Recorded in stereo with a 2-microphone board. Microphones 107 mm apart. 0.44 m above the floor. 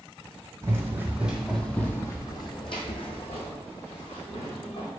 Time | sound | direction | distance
0.6 | running footsteps | 30° right (ahead or behind) | 1.1 m